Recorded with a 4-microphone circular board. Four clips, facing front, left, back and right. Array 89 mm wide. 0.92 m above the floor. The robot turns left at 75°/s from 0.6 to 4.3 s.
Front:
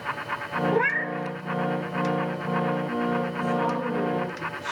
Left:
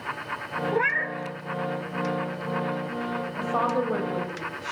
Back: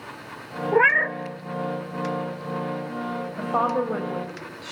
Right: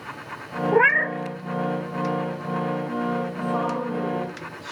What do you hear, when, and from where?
0.7 s a cat meowing: 125° right, 0.6 m; by 1.1 s 155° right, 0.6 m
3.4 s a woman speaking: straight behind, 5 m; by 4.7 s 110° left, 5 m